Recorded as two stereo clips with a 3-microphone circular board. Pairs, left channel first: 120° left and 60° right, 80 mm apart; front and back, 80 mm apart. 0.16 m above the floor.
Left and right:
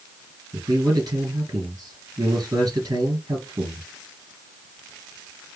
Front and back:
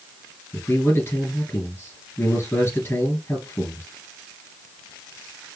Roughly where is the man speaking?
Ahead right.